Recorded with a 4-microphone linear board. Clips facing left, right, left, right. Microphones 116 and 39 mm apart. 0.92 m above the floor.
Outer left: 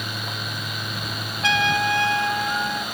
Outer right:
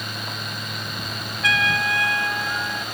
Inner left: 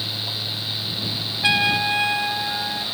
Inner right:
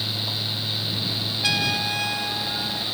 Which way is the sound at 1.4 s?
30° left (ahead or behind).